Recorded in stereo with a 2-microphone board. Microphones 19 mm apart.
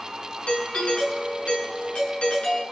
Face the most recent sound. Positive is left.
turn(degrees=70)  # may be behind; listen again after turning